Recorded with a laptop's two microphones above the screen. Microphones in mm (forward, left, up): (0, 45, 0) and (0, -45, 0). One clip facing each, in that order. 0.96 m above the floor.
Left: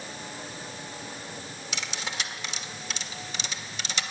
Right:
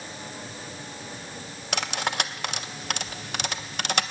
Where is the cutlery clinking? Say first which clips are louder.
Right 8 dB; 60° right (ahead or behind), 0.8 m.